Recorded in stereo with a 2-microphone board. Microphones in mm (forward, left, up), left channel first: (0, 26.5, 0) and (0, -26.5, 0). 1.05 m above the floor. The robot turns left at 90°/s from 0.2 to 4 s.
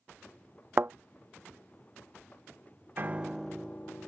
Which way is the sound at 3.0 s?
135° right.